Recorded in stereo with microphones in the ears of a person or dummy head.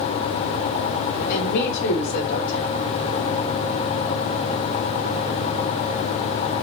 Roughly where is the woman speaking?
Left.